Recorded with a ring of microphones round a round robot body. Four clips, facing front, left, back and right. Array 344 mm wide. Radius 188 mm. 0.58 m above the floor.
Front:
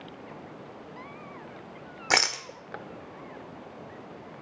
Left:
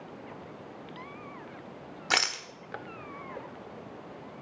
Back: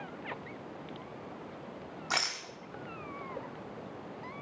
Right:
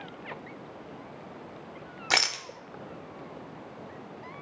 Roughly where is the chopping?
No chopping in this recording.